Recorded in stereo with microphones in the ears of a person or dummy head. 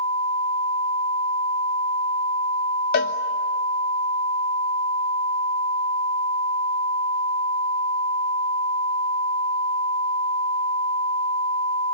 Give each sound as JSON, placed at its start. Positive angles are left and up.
{"t": 2.9, "sound": "a cowbell", "side_deg": 45, "distance_m": 1.2}